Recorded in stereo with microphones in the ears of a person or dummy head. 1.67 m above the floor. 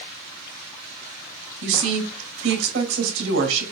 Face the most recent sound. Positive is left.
turn(degrees=-75)  # may be behind; listen again after turning